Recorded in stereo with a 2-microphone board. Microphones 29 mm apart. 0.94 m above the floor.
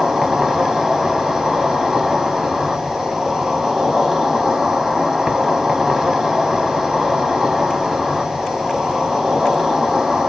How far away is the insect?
About 0.8 m.